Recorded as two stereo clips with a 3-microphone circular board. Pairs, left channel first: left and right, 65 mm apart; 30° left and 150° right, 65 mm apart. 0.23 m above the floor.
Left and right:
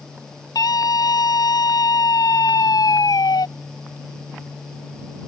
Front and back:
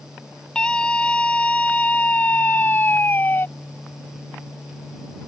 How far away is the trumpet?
I don't hear a trumpet.